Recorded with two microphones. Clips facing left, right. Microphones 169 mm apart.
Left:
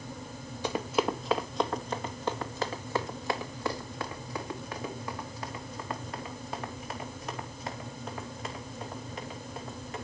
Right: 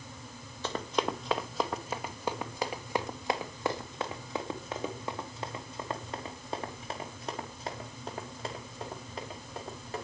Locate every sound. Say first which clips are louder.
0.6 s running footsteps: left 3 dB; 10° left (ahead or behind), 1.5 m; by 10.0 s 30° right (ahead or behind), 7 m